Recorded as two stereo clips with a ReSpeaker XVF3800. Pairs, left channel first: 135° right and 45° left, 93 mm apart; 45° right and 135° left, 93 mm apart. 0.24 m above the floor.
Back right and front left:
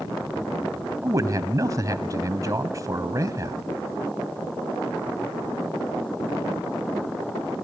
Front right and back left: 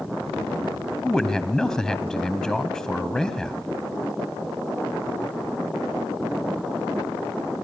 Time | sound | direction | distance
1.0 | a man speaking | 35° left | 1.4 m